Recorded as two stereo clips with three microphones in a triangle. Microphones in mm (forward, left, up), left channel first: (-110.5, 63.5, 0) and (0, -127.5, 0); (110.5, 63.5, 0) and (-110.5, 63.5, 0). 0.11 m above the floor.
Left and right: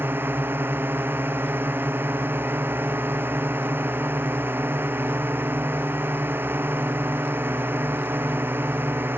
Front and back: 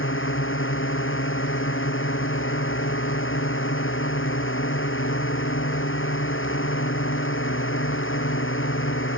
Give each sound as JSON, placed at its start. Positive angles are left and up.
{"t": 0.0, "sound": "a drone", "azimuth_deg": 20}